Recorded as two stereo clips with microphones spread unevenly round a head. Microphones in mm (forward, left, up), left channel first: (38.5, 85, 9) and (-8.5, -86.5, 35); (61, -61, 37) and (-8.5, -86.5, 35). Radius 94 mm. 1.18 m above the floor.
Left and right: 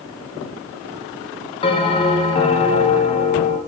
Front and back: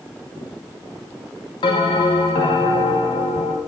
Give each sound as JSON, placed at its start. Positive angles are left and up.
{"t": 1.6, "sound": "a bell", "azimuth_deg": 15, "distance_m": 1.0}